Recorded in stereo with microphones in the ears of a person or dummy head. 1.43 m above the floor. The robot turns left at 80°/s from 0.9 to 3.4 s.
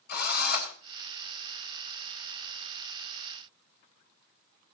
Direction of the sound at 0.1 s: 60° left (ahead or behind).